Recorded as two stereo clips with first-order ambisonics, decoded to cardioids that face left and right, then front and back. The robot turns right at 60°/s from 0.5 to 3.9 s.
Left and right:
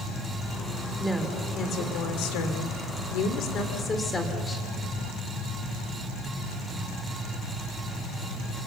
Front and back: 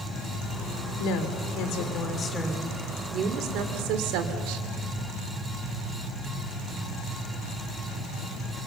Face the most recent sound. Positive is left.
turn(degrees=165)